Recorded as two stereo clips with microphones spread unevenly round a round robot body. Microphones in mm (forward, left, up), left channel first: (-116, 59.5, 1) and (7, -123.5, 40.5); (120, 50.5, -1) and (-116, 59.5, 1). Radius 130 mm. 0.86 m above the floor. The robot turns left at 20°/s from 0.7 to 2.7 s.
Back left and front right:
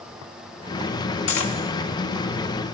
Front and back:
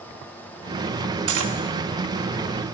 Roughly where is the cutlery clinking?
Behind left.